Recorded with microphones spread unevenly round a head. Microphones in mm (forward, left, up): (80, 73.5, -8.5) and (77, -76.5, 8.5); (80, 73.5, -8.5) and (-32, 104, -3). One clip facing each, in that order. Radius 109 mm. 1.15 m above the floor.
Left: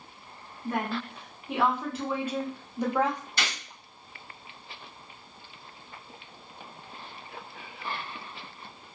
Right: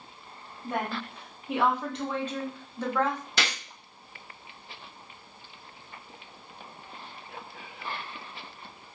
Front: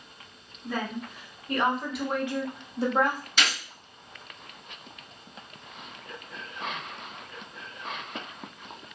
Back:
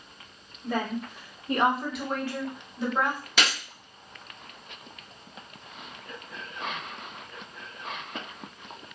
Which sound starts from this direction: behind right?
A gunshot, at 3.4 s.